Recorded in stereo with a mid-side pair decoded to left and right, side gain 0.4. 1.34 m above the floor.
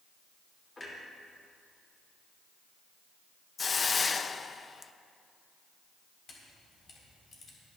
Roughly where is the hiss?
Ahead left.